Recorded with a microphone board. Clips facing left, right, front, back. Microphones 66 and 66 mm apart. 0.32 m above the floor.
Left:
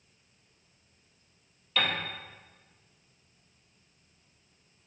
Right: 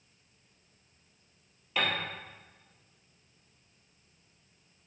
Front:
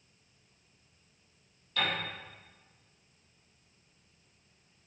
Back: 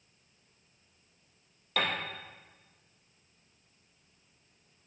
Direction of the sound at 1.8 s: 165° right.